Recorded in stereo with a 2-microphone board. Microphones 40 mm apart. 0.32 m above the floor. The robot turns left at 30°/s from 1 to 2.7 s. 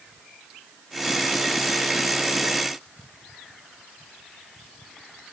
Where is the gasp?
I don't hear a gasp.